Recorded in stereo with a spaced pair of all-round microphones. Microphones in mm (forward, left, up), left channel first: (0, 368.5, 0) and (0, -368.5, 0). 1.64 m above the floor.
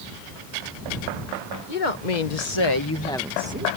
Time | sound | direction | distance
1.7 | a woman speaking | 80° left | ?